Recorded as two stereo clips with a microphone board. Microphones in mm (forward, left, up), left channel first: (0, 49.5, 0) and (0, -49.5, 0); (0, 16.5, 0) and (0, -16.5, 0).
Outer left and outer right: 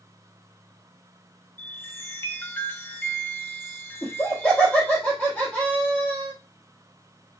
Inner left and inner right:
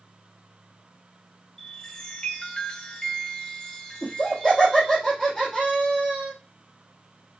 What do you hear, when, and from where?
1.6 s a chime: 20° left (ahead or behind), 0.6 m
4.0 s laughter: 15° left (ahead or behind), 1.1 m